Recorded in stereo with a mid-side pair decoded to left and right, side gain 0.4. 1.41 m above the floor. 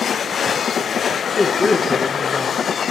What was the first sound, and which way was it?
A man speaking, 30° left.